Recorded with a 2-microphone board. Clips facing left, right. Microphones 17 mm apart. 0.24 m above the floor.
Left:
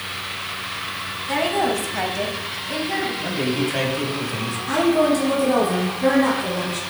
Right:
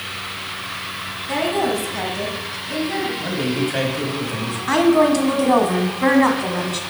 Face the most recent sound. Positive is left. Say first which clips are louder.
# right 3 dB
turn(degrees=-50)  # may be behind; listen again after turning